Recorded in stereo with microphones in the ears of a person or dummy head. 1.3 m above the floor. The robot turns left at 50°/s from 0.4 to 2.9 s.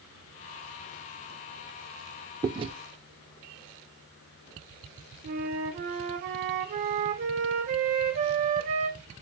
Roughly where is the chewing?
Right.